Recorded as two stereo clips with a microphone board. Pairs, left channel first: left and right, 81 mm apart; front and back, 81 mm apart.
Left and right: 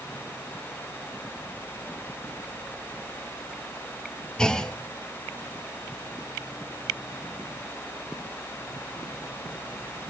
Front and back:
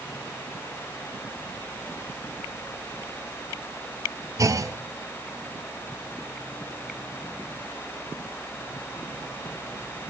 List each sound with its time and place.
4.4 s a clunk: 165° left, 0.9 m